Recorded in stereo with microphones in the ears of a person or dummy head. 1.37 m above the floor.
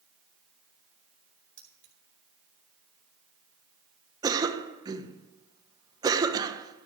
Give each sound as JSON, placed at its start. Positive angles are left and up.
{"t": 1.6, "sound": "keys jangling", "side_deg": -15, "distance_m": 3.0}
{"t": 4.2, "sound": "a cough", "side_deg": -20, "distance_m": 1.3}